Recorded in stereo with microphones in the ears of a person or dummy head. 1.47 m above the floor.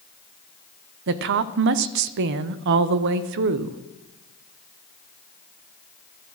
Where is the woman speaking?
55° right (ahead or behind), 0.6 m.